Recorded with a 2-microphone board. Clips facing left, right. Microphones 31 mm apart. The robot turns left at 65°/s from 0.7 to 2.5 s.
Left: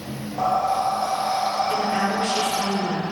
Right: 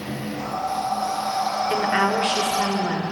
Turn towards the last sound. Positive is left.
turn(degrees=-95)